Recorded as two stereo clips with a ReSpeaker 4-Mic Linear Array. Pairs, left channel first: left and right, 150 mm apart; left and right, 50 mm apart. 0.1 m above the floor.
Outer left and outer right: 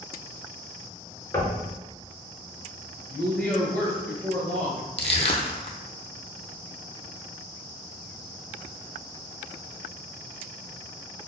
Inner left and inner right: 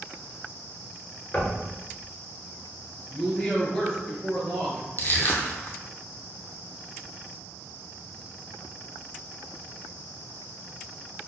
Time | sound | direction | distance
1.3 | knocking | 25° left (ahead or behind) | 0.9 m
3.1 | a woman speaking | 10° left (ahead or behind) | 1.4 m
5.0 | crushing | 45° left (ahead or behind) | 0.7 m